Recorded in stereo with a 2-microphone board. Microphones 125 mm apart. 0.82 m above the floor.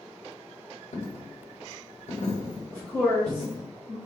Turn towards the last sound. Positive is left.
turn(degrees=10)  # may be behind; listen again after turning